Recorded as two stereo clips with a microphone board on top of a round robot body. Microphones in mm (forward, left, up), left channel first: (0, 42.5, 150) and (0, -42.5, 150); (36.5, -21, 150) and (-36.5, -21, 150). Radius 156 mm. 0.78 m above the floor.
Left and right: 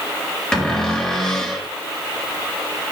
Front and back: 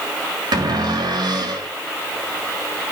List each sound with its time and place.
0.5 s a cupboard door: 170° left, 4.5 m